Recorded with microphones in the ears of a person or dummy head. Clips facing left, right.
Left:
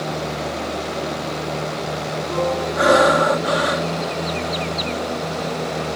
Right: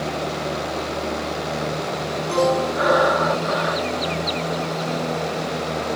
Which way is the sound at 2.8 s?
40° left (ahead or behind).